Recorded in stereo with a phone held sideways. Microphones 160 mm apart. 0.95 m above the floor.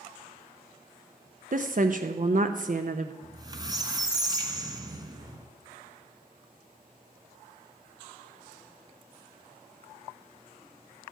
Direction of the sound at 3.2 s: 25° right (ahead or behind).